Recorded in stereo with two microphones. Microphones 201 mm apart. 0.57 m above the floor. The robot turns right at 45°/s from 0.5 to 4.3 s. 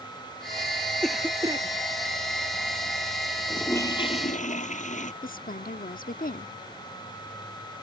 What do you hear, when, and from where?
1.0 s a cough: 5° left (ahead or behind); by 1.7 s 25° right (ahead or behind)
3.5 s a toilet flushing: straight ahead; by 5.1 s 40° left
5.2 s a woman speaking: 45° left (ahead or behind)